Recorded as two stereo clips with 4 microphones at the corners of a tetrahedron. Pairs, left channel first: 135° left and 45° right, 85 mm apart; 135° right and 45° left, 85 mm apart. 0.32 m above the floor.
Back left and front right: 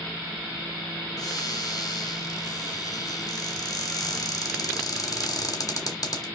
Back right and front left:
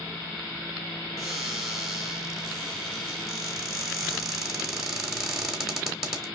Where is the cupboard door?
130° left, 1.0 m.